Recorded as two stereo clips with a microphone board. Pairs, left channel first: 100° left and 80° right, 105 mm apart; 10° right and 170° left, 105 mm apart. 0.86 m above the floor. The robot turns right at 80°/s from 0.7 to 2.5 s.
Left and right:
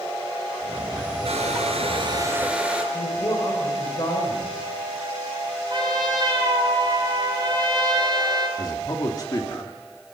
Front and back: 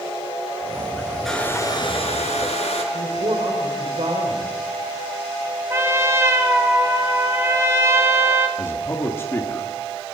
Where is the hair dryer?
100° right, 4.5 m; by 2.8 s straight ahead, 4.5 m.